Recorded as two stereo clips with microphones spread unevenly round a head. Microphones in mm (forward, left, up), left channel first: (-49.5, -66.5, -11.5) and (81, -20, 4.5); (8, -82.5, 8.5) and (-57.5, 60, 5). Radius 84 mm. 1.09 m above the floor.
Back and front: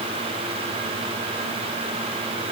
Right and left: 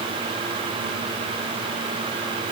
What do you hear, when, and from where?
Only background noise.